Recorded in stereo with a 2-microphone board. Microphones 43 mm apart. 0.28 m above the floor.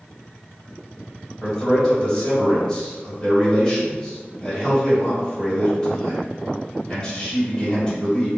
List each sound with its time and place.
1.4 s a man speaking: 20° left (ahead or behind), 1.4 m